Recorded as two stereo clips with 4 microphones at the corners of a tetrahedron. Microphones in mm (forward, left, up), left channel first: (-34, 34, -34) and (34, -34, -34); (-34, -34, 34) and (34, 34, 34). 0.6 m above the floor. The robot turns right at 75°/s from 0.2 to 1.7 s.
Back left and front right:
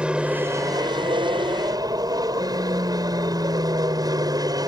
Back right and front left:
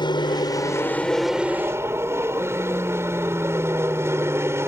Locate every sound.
0.0 s an aircraft: 120° right; by 4.7 s 10° right